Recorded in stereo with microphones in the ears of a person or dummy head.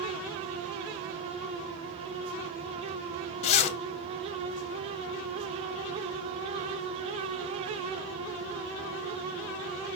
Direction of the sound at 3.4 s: 40° left (ahead or behind).